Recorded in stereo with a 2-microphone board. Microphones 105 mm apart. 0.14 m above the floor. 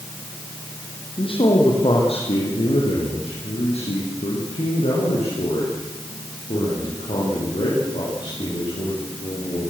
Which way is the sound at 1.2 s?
60° left (ahead or behind).